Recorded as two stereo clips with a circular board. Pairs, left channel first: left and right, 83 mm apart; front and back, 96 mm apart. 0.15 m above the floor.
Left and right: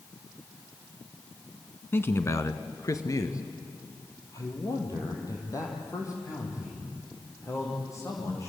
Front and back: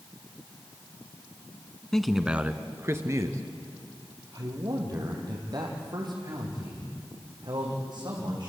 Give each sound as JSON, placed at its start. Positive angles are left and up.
{"t": 1.9, "sound": "a man speaking", "azimuth_deg": 75, "distance_m": 1.3}